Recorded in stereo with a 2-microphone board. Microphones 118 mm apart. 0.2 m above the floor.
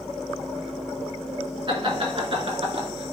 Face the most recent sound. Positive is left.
turn(degrees=-55)  # may be behind; listen again after turning